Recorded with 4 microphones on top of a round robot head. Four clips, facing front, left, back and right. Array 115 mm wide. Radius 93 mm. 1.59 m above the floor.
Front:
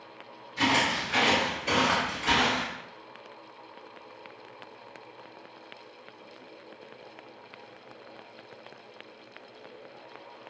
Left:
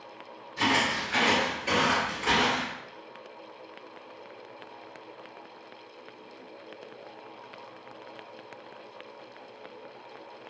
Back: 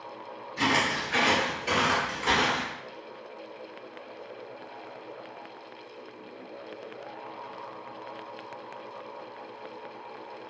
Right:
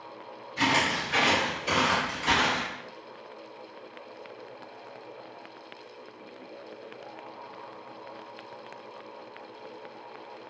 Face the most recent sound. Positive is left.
turn(degrees=115)